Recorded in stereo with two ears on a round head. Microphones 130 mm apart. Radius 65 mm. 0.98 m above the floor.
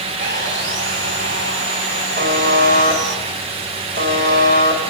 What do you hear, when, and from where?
0.2 s sawing: 80° right, 4.5 m
2.2 s a buzzer: 70° right (ahead or behind), 6 m